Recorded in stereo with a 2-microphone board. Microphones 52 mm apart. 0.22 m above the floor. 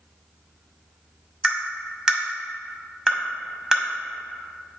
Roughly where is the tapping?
Centre.